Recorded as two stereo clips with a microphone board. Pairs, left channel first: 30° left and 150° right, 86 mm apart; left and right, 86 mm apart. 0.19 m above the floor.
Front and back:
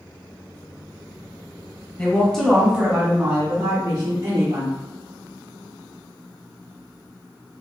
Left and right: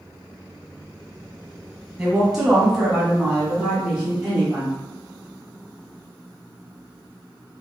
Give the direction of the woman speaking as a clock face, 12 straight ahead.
1 o'clock.